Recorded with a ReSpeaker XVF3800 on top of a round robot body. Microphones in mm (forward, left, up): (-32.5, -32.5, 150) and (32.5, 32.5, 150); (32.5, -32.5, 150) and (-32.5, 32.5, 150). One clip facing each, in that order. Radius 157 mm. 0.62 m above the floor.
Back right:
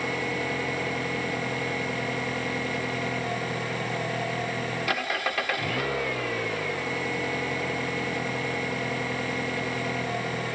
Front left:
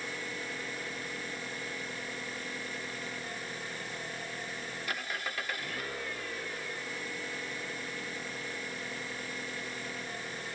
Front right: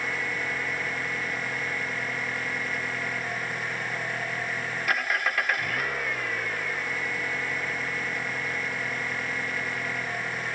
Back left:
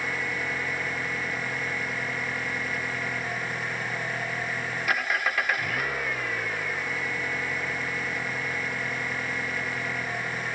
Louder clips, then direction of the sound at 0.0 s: Back right 11 dB, even; 135° right.